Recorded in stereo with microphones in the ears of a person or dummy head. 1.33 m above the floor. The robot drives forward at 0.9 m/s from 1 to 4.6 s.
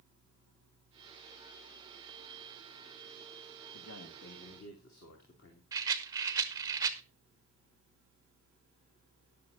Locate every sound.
3.7 s a man speaking: 85° left, 2.5 m; by 5.6 s 70° left (ahead or behind), 2.5 m
5.7 s a rattle: 20° right (ahead or behind), 0.8 m